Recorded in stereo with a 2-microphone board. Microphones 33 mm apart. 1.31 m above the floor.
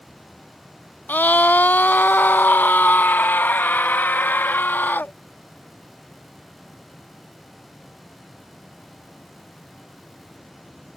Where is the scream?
60° left (ahead or behind); by 5.1 s 80° left.